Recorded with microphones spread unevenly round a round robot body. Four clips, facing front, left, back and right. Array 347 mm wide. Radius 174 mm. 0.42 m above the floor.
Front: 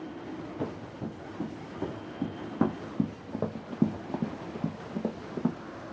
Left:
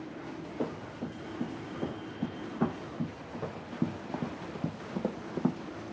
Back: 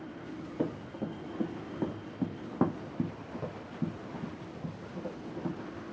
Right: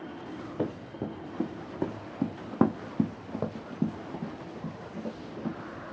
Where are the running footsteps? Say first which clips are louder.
Right 3 dB, back 4 dB; 95° right, 1.9 m; by 5.6 s 50° left, 1.2 m.